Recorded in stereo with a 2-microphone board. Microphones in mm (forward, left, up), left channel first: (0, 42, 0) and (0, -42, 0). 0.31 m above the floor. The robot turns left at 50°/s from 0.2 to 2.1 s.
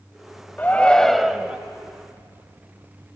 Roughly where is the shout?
Ahead left.